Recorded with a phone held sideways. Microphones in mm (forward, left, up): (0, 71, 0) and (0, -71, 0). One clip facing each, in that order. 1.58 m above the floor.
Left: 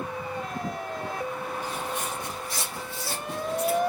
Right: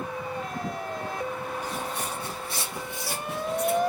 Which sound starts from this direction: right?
Footsteps, at 1.6 s.